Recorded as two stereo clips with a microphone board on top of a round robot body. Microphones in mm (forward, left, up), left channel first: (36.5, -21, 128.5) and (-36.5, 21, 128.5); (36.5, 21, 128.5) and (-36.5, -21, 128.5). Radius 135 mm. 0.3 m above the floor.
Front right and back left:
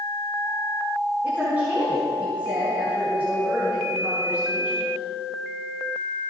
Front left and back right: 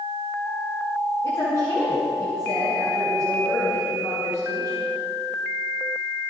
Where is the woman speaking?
80° left, 5 m.